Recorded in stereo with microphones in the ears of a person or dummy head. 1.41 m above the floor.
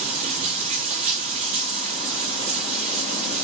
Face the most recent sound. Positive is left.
turn(degrees=-35)  # may be behind; listen again after turning